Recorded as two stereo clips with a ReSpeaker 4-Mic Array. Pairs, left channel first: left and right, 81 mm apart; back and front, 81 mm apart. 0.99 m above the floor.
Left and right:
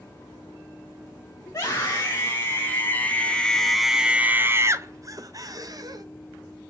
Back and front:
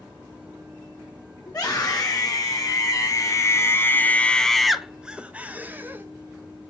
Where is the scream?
140° left, 1.6 m; by 6.0 s 60° right, 1.2 m.